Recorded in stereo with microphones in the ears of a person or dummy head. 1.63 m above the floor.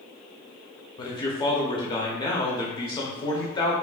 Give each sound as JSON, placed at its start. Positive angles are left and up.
{"t": 1.0, "sound": "a man speaking", "side_deg": 20, "distance_m": 0.7}